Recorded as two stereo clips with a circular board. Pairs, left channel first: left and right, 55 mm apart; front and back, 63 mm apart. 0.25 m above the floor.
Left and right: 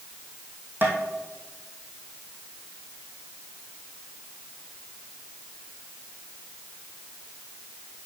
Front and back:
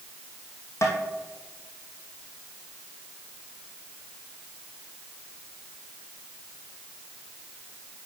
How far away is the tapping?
About 1.9 m.